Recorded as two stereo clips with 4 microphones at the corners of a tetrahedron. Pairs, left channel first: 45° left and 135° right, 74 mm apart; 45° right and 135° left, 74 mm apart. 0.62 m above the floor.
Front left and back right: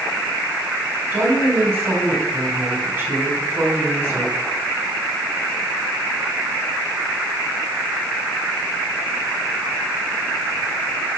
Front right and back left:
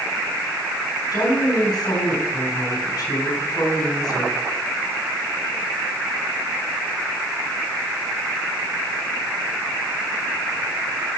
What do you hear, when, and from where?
1.1 s a woman speaking: 65° right, 4.5 m